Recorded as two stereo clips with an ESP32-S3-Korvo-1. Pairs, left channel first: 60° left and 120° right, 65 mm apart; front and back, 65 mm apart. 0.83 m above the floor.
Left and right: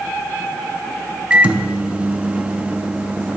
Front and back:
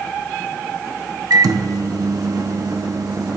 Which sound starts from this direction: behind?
A microwave, at 1.3 s.